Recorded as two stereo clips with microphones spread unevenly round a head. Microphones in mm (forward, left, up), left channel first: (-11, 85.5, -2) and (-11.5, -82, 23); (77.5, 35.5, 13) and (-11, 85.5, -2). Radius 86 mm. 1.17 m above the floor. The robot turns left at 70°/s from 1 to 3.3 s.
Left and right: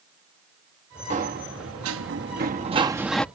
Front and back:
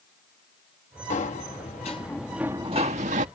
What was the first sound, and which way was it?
A sliding door, 35° right.